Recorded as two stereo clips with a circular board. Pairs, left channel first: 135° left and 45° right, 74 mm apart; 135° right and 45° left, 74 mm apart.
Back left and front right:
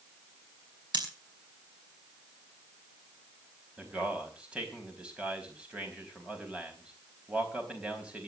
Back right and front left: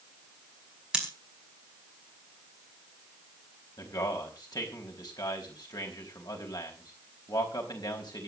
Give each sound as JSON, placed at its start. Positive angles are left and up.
{"t": 0.9, "sound": "scissors", "azimuth_deg": -35, "distance_m": 5.0}
{"t": 3.8, "sound": "a man speaking", "azimuth_deg": -120, "distance_m": 4.5}